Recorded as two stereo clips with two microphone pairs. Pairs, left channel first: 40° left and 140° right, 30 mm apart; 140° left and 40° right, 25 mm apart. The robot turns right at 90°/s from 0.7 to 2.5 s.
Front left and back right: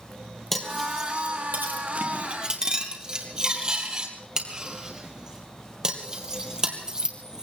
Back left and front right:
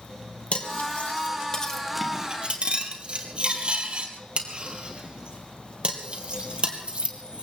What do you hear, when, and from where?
0.5 s cutlery clinking: 120° left, 2.5 m; by 7.5 s 75° right, 2.5 m